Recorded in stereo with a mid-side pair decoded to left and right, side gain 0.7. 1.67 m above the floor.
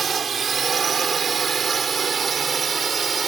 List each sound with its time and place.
0.0 s a drone: 30° right; by 3.3 s 25° right